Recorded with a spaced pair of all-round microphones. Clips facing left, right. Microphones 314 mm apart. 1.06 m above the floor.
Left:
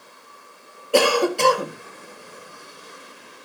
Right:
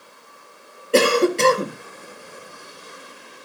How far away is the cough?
About 1.2 m.